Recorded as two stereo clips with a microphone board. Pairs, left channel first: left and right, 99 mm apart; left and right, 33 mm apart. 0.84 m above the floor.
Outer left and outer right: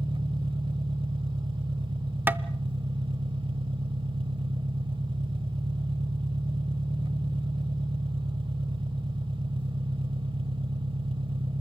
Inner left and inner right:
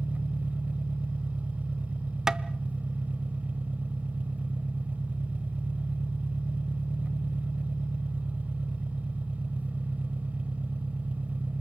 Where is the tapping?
20° right (ahead or behind), 0.6 m.